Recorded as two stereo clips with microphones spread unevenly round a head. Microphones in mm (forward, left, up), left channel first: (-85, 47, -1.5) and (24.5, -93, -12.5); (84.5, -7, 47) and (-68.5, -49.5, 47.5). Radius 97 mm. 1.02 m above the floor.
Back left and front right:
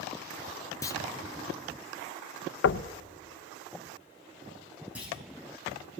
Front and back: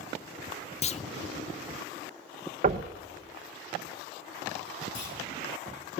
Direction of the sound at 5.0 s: 30° left.